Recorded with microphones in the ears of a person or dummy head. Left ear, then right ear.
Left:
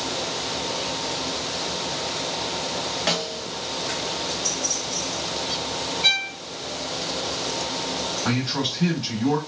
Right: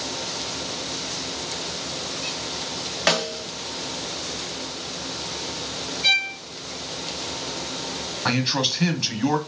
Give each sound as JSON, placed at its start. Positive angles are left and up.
{"t": 3.1, "sound": "a snare drum", "side_deg": -35, "distance_m": 0.6}
{"t": 6.0, "sound": "a violin", "side_deg": 15, "distance_m": 1.2}
{"t": 8.2, "sound": "a man speaking", "side_deg": -70, "distance_m": 1.2}